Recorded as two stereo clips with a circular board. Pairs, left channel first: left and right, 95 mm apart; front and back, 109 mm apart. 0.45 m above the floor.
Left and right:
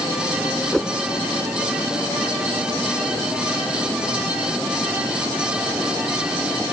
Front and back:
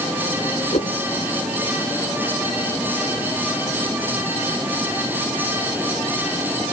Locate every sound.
0.7 s a whoosh: 5° left